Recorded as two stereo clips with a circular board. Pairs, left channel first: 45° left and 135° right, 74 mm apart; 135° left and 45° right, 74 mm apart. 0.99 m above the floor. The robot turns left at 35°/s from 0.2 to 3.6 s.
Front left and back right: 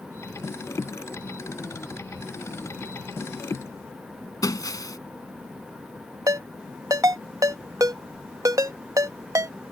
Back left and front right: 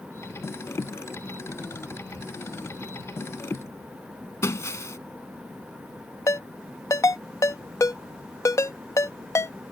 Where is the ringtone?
175° right.